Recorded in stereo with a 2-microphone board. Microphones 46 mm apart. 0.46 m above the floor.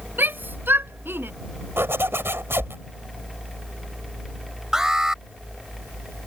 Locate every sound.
0.2 s a shout: 45° right (ahead or behind); by 1.3 s 50° right (ahead or behind)
1.8 s a zipper: 60° right (ahead or behind)
4.7 s an alarm: 15° right (ahead or behind)